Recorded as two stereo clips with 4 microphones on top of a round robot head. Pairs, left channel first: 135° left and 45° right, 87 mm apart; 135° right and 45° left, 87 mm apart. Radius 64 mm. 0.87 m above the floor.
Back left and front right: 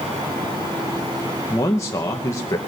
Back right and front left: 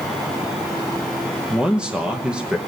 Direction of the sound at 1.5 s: 120° left.